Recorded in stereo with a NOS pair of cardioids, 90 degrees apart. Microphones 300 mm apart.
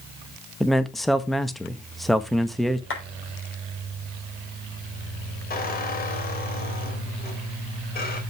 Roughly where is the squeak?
Ahead left.